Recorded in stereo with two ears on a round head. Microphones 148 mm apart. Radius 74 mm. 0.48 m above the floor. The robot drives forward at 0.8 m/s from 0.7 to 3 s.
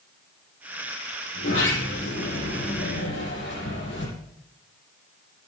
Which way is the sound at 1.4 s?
90° left.